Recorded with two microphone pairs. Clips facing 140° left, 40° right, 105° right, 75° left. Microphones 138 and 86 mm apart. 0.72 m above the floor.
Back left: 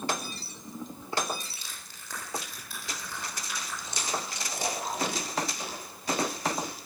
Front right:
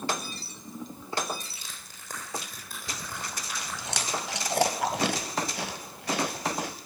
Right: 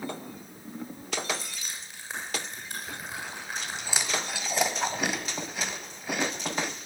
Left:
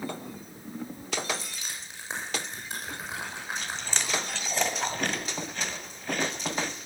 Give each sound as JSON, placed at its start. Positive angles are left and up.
{"t": 1.4, "sound": "crushing", "azimuth_deg": 5, "distance_m": 8.0}
{"t": 2.9, "sound": "chewing", "azimuth_deg": -25, "distance_m": 1.7}